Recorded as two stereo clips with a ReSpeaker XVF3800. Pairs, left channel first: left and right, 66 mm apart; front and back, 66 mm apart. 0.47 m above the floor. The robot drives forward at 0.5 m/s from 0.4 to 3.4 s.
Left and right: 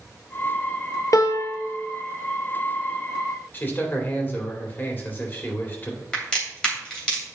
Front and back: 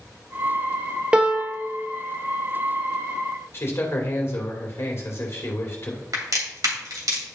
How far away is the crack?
About 3 m.